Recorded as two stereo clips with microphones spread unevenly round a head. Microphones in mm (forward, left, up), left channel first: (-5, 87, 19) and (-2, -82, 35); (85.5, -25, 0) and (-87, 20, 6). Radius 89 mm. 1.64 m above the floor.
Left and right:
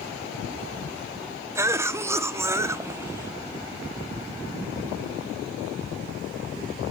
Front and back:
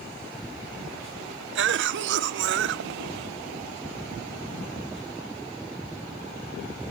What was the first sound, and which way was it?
A cough, 165° right.